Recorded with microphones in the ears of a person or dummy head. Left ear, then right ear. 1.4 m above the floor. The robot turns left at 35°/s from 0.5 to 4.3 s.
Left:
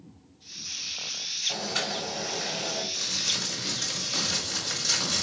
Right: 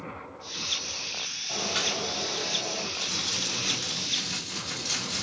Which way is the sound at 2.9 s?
145° left.